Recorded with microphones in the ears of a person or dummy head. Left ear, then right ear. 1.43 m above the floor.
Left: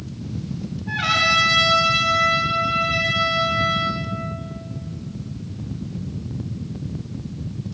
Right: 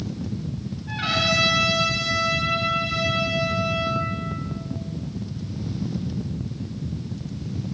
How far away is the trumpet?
About 7 m.